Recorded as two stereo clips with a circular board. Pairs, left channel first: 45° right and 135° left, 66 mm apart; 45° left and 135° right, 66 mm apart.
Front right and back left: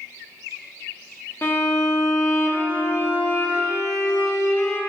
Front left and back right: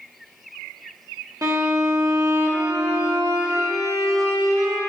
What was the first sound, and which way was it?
A violin, 100° right.